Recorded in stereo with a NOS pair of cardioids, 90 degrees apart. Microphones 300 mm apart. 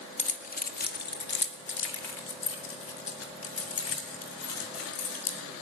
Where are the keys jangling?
25° left, 1.6 m; by 5.4 s 55° left, 4.5 m.